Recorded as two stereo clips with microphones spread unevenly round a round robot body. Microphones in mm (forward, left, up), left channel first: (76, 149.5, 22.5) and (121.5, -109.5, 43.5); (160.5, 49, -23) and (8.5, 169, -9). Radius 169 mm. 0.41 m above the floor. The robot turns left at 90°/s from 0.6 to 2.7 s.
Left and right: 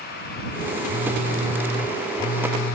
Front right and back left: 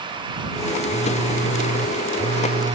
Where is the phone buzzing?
105° right; by 2.8 s 90° left.